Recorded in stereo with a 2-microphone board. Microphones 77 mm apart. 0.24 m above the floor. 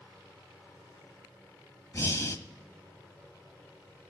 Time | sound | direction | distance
1.9 | breathing | 35° left (ahead or behind) | 0.9 m